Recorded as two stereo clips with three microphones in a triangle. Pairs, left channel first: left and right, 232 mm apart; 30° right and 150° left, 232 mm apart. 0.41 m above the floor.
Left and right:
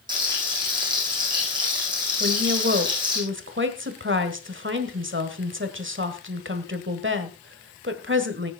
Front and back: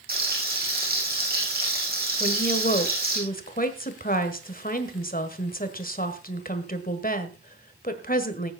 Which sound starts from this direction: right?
A woman speaking, at 2.2 s.